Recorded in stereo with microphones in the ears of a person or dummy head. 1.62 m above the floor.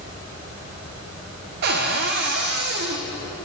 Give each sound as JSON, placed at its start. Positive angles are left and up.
{"t": 1.6, "sound": "a cupboard door", "side_deg": -60, "distance_m": 1.2}